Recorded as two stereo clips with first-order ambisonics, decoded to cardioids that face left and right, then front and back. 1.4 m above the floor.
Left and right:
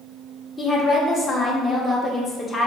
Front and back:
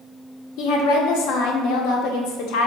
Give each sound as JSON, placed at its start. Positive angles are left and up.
{"t": 0.6, "sound": "a woman speaking", "azimuth_deg": 15, "distance_m": 0.6}